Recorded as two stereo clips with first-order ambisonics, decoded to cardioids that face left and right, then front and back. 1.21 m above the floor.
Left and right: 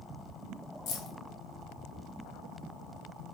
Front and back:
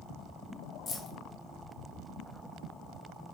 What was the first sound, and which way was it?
Keys jangling, 65° left.